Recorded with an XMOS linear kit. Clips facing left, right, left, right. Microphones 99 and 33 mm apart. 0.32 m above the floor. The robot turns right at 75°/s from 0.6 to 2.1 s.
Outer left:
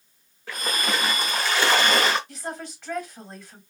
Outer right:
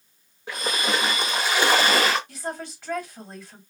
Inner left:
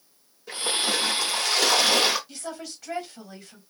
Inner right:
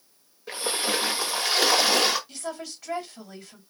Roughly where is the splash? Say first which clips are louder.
Outer right 1 dB, inner left 1 dB; centre.